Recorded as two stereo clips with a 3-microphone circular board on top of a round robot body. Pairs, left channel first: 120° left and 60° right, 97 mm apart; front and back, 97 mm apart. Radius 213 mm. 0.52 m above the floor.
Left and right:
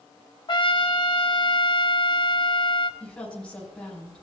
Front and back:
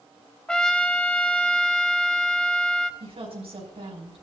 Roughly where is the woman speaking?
Behind.